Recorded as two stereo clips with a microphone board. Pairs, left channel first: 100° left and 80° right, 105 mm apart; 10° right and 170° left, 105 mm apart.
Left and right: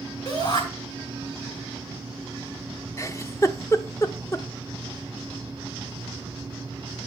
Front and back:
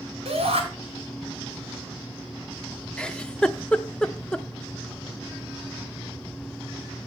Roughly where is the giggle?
Ahead left.